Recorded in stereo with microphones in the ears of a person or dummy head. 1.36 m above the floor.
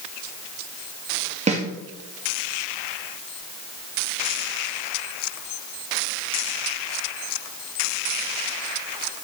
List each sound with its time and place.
1.5 s a snare drum: 30° right (ahead or behind), 0.9 m